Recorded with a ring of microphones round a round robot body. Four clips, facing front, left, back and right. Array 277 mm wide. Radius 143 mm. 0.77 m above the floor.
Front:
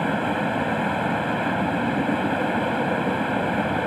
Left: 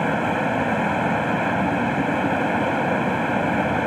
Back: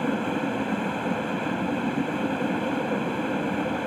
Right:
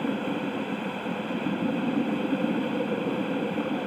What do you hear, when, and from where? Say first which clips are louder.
0.0 s running water: left 7 dB, front 3 dB; 65° left